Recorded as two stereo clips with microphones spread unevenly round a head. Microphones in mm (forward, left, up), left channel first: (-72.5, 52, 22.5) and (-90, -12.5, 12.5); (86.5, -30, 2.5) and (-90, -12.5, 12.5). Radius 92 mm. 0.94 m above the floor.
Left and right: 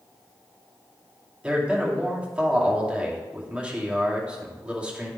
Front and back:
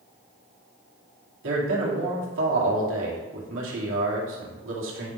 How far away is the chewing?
I don't hear chewing.